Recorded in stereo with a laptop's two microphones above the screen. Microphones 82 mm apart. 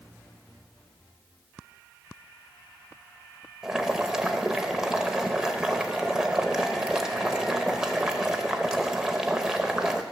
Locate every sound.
3.6 s boiling: 10° right (ahead or behind), 0.7 m